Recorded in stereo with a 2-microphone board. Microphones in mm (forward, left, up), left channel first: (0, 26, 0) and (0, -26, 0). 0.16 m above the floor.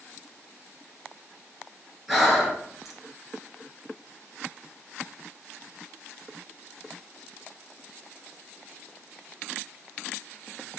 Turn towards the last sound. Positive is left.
turn(degrees=-5)  # may be behind; listen again after turning